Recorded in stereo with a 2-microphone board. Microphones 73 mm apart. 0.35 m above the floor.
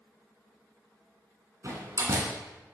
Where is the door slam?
45° right (ahead or behind), 2.5 m.